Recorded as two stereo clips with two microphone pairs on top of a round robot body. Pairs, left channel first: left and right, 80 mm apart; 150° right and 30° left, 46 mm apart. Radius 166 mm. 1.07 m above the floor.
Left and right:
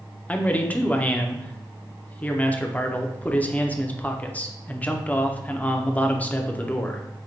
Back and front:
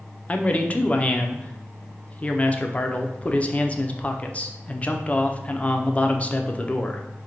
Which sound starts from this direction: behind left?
A man speaking, at 0.3 s.